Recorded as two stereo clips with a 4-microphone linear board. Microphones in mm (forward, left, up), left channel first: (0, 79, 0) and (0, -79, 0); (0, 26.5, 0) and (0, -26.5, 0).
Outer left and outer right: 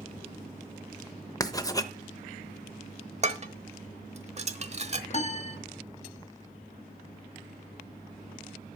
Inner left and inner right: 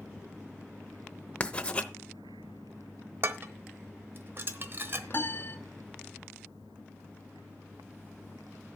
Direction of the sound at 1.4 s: 20° left (ahead or behind).